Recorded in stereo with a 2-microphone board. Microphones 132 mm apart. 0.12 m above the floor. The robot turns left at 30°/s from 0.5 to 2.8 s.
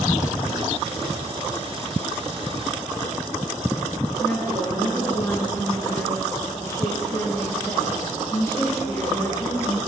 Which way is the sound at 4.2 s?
20° left (ahead or behind).